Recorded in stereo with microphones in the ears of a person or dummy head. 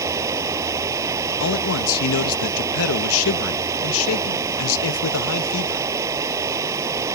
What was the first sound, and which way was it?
Running water, 15° right (ahead or behind).